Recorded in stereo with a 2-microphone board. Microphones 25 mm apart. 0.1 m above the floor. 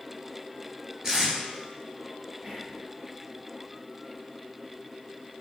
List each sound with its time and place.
1.0 s tape being pulled: 25° right (ahead or behind), 1.8 m
2.4 s whispering: 25° right (ahead or behind), 3 m